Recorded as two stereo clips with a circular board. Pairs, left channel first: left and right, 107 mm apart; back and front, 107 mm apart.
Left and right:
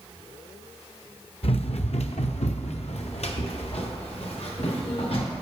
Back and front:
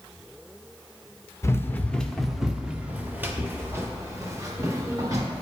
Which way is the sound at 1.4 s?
115° left.